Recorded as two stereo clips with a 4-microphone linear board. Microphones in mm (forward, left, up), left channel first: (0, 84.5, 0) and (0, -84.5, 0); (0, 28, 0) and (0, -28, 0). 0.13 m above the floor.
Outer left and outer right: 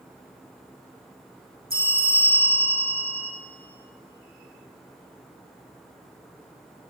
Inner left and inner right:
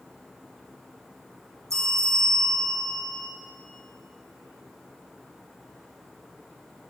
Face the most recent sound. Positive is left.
turn(degrees=-70)  # may be behind; listen again after turning